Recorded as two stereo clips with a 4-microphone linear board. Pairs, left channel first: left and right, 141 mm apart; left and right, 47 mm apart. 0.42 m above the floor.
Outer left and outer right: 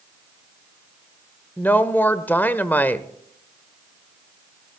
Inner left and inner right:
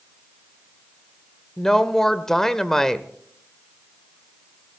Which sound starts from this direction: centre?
A woman speaking, at 1.6 s.